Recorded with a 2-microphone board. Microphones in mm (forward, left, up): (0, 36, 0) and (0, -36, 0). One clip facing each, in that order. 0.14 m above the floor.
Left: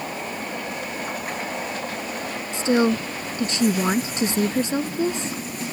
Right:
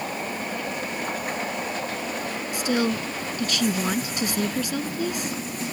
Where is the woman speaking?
30° left (ahead or behind).